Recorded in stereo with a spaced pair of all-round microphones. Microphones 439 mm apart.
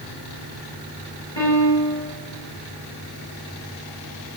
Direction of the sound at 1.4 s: 85° left.